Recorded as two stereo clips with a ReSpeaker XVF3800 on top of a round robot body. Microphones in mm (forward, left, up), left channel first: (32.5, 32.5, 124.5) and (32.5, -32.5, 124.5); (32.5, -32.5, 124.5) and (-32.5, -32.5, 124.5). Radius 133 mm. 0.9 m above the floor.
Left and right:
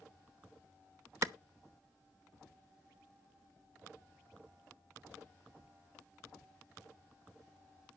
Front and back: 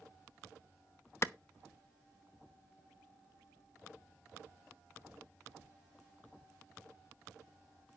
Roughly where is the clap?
Ahead right.